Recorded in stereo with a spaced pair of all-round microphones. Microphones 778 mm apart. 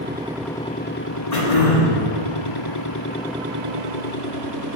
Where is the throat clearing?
55° left (ahead or behind), 1.5 m.